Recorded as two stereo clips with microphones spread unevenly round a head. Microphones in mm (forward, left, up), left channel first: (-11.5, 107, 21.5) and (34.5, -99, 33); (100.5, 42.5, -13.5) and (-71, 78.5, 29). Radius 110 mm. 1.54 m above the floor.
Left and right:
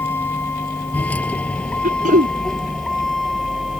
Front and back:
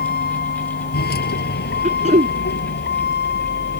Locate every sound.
0.0 s a vehicle: 20° left; by 3.8 s 10° left
1.8 s throat clearing: 135° right